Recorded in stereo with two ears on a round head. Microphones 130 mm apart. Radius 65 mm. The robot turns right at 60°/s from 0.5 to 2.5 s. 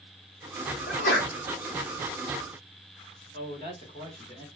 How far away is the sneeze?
About 2.0 m.